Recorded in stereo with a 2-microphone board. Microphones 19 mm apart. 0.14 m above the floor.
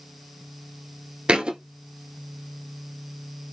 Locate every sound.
1.3 s a thud: 65° right (ahead or behind), 0.6 m